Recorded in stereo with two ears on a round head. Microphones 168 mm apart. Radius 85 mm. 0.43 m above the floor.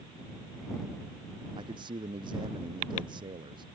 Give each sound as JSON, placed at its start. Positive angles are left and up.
{"t": 1.6, "sound": "a man speaking", "side_deg": -25}